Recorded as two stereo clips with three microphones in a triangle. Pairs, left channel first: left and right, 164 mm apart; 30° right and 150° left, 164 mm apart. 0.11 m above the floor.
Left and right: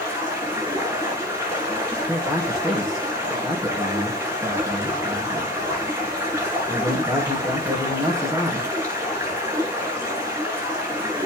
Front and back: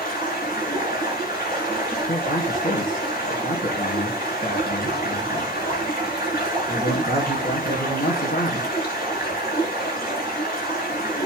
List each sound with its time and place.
0.0 s running water: 15° right, 7.5 m
2.1 s a man speaking: 5° right, 5 m